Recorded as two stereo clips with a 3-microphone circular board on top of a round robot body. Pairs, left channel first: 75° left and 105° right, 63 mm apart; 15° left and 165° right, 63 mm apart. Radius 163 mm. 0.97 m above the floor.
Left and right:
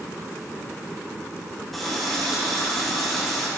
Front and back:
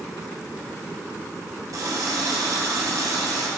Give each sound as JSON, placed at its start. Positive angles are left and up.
{"t": 1.7, "sound": "a running tap", "azimuth_deg": 165, "distance_m": 1.3}